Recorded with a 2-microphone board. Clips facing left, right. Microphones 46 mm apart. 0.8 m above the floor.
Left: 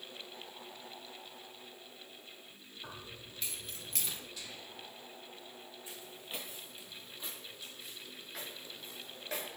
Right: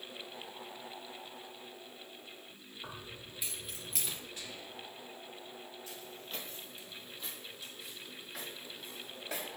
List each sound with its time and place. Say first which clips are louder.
2.8 s keys jangling: right 1 dB; 15° right (ahead or behind), 1.9 m; by 4.2 s centre (ahead or behind), 0.6 m
4.4 s whispering: right 2 dB; 30° right (ahead or behind), 1.9 m
5.9 s footsteps: left 2 dB; 20° left (ahead or behind), 0.8 m; by 9.5 s 5° right (ahead or behind), 2.5 m